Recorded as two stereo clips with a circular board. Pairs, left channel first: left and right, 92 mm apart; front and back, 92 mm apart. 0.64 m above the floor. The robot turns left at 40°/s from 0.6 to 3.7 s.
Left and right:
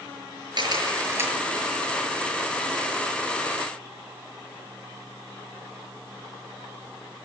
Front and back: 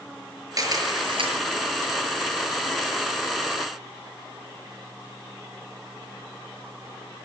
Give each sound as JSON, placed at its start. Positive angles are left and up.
{"t": 0.6, "sound": "a camera shutter", "azimuth_deg": -130, "distance_m": 6.0}